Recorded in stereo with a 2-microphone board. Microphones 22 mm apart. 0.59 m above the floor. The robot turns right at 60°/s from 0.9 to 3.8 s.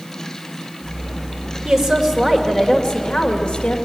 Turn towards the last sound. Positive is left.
turn(degrees=100)